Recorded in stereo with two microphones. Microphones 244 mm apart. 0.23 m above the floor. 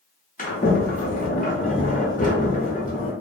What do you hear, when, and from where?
0.4 s a sliding door: 35° left (ahead or behind), 0.8 m